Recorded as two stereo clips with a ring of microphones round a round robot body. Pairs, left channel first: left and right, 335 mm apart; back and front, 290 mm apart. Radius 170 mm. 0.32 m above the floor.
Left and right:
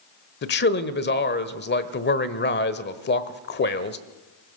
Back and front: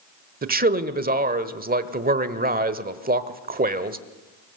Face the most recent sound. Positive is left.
turn(degrees=45)